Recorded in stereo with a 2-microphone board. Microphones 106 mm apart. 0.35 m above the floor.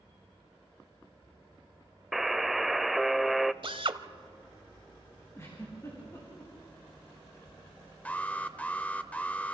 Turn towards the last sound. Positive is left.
turn(degrees=15)  # may be behind; listen again after turning